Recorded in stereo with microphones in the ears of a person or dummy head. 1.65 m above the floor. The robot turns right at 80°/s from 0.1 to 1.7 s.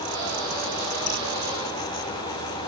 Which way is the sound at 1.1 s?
55° left (ahead or behind).